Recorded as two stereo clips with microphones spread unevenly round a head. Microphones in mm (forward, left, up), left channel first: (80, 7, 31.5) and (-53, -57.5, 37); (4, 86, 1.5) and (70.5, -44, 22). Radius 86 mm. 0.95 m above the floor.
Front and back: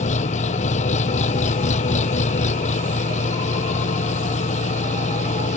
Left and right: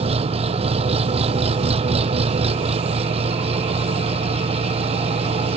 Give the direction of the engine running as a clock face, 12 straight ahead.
1 o'clock.